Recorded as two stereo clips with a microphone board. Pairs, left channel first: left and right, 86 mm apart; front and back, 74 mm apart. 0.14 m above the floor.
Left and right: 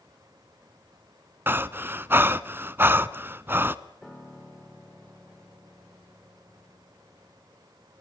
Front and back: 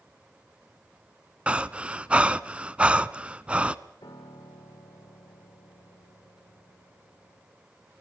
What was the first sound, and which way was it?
Breathing, 125° right.